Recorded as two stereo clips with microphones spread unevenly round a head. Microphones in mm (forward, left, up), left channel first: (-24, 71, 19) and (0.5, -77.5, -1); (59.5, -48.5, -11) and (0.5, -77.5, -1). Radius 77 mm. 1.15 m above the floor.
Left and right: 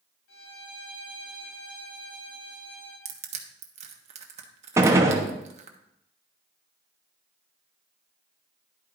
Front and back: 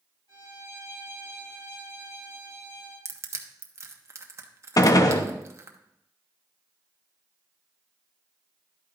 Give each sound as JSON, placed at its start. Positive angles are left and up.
{"t": 0.3, "sound": "a violin", "azimuth_deg": 85, "distance_m": 5.5}
{"t": 3.0, "sound": "crushing", "azimuth_deg": -110, "distance_m": 1.1}
{"t": 4.8, "sound": "a gunshot", "azimuth_deg": -5, "distance_m": 0.9}